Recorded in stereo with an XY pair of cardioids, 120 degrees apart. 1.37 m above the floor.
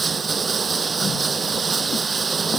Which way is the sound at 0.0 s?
30° right.